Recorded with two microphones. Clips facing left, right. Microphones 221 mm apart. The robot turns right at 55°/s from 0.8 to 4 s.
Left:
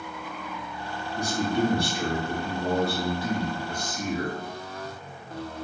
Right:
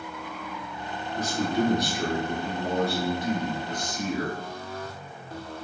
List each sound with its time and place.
1.2 s a man speaking: 20° left, 1.4 m; by 4.4 s 175° left, 1.4 m